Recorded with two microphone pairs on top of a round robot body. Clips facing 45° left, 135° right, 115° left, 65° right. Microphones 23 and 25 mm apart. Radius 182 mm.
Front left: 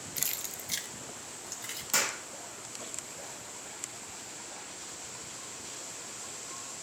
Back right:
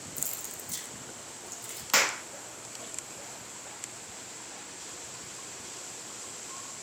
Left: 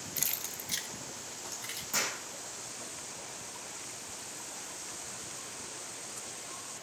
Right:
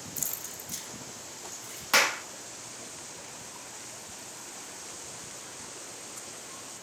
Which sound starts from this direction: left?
Keys jangling, at 0.2 s.